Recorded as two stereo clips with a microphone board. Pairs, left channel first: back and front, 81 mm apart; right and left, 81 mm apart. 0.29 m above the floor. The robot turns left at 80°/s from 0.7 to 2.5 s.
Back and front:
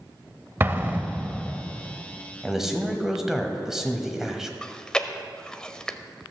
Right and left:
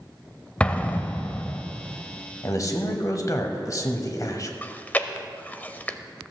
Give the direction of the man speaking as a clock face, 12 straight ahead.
3 o'clock.